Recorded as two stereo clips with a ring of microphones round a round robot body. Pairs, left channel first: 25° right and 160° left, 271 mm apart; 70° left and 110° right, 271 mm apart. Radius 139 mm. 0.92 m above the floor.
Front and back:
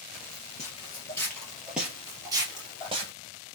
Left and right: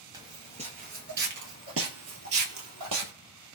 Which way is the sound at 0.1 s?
45° right.